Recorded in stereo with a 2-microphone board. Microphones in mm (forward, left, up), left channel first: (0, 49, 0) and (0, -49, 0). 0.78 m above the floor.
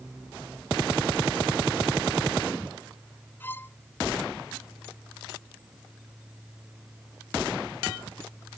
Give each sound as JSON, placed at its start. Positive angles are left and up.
{"t": 3.4, "sound": "a violin", "side_deg": 20}